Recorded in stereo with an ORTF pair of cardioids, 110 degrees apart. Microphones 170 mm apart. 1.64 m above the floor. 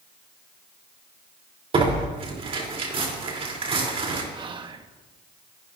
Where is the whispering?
30° right, 1.5 m.